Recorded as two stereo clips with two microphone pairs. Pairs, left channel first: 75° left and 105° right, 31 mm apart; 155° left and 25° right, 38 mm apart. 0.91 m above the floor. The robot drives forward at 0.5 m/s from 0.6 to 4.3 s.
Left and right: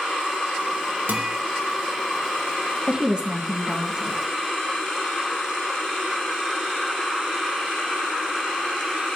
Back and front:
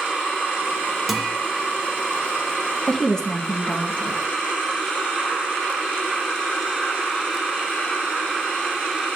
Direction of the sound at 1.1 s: 110° right.